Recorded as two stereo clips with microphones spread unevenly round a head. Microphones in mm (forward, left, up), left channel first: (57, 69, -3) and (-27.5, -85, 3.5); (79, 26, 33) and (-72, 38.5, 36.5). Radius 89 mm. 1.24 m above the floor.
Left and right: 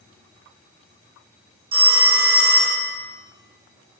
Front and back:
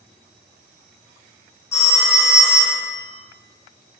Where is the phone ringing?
80° right, 2.5 m.